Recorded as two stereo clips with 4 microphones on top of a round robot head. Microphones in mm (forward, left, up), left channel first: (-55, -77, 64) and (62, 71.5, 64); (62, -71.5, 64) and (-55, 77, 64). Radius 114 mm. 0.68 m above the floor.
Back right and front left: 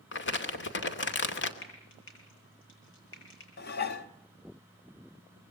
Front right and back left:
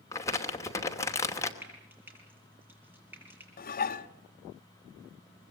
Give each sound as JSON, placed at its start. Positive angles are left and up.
{"t": 0.1, "sound": "crumpling", "azimuth_deg": -125, "distance_m": 2.5}
{"t": 1.6, "sound": "frying", "azimuth_deg": -150, "distance_m": 9.0}
{"t": 3.6, "sound": "dishes clattering", "azimuth_deg": -95, "distance_m": 1.2}